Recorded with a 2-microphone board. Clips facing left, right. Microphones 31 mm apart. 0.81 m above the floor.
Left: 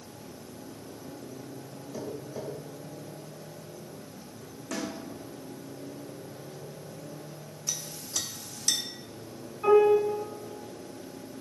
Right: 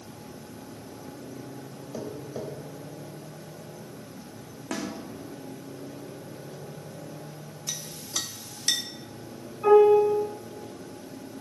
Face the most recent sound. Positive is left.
turn(degrees=0)  # may be behind; listen again after turning